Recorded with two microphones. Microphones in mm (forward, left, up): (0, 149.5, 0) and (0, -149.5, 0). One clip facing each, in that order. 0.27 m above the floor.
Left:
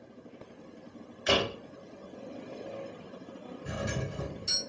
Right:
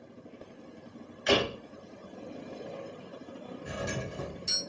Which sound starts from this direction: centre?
A door slam, at 1.3 s.